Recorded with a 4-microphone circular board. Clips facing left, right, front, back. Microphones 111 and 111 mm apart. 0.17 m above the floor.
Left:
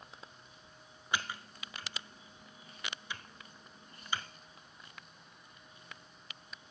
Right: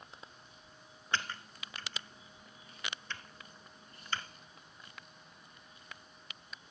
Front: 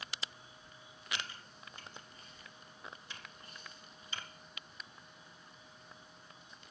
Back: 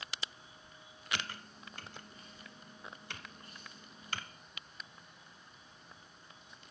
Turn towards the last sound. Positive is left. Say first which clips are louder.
# even, back 3 dB
turn(degrees=170)